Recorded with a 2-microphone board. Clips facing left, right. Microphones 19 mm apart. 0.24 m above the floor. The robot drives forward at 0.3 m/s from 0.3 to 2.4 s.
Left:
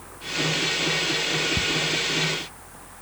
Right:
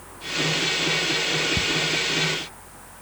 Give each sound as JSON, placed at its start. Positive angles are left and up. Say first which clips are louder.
{"t": 1.6, "sound": "ticking", "louder": "right 1 dB", "side_deg": -20, "distance_m": 0.8}